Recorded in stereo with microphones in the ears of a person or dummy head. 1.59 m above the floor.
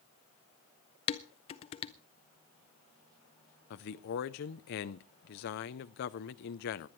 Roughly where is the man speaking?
Left.